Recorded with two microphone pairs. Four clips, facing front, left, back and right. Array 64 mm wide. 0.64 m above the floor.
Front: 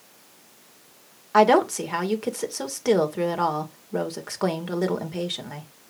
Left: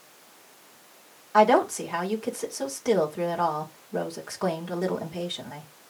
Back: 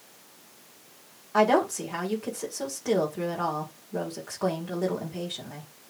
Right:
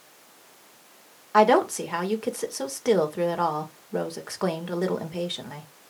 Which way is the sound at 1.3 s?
45° right.